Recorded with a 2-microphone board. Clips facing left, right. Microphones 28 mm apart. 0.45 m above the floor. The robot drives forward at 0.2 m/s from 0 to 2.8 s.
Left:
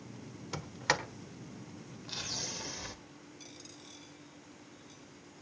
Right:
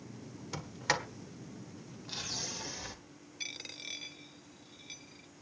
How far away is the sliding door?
About 1.3 m.